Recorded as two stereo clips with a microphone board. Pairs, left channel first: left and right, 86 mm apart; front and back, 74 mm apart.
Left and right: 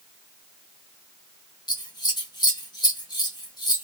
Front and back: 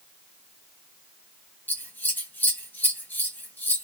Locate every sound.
1.7 s scissors: 60° left, 1.2 m